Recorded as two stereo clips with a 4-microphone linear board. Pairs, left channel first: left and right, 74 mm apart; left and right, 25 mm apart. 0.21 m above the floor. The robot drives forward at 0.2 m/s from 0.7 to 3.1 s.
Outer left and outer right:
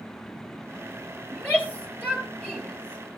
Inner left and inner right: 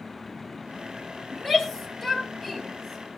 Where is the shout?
20° left (ahead or behind), 4.5 m.